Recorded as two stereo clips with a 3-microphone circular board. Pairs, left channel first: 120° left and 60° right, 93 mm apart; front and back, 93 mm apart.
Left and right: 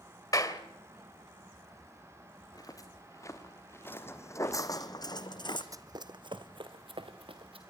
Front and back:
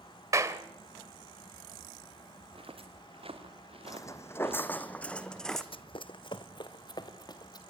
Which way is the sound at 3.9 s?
50° left.